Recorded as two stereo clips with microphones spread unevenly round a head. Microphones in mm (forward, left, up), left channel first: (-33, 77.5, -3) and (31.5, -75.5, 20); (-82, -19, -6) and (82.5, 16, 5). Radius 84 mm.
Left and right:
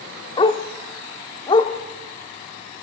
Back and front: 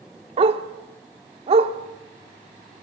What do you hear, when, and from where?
0.4 s a dog barking: 50° left, 1.1 m